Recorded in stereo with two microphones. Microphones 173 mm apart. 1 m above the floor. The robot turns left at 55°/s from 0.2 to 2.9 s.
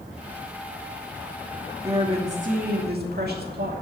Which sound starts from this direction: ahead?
A woman speaking, at 1.8 s.